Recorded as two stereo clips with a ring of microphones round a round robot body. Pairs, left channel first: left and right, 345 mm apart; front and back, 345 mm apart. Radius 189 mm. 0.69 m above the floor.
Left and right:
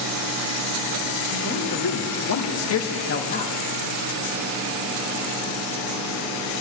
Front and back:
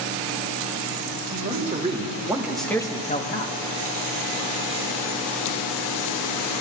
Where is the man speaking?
120° left, 1.9 m; by 3.5 s 25° left, 1.1 m.